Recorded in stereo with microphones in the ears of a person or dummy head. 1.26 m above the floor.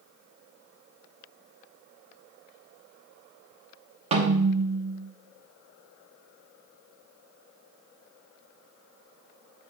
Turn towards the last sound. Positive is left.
turn(degrees=-35)  # may be behind; listen again after turning